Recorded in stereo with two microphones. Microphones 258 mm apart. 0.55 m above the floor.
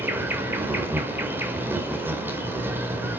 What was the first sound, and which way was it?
An insect, 10° right (ahead or behind).